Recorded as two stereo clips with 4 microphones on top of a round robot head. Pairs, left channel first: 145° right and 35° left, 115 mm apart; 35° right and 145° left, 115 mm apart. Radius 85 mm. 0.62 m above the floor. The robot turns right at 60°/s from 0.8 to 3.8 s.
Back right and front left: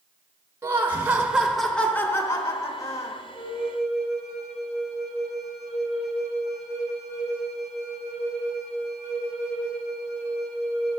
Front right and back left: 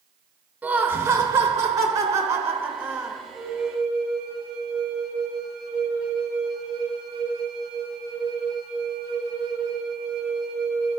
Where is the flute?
75° left, 3.5 m; by 11.0 s 100° left, 3.5 m.